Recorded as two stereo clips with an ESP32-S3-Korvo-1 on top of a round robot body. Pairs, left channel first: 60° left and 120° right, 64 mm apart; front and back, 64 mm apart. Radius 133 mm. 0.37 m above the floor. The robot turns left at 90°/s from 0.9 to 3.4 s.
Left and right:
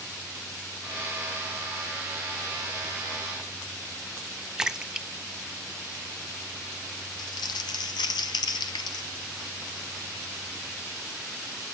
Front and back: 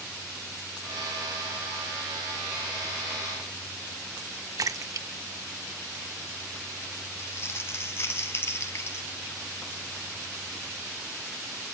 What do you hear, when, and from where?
4.6 s a splash: 160° left, 0.6 m
7.2 s crumpling: 55° left, 0.5 m